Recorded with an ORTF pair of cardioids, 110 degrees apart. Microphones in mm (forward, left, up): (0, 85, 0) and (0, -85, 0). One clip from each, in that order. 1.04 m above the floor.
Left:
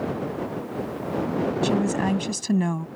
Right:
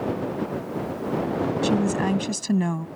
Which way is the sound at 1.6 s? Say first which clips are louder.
Right 1 dB; straight ahead.